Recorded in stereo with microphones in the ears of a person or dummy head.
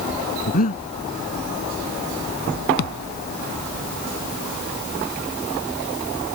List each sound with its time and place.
0.5 s breathing: 45° left (ahead or behind)
2.8 s a thud: 65° left (ahead or behind)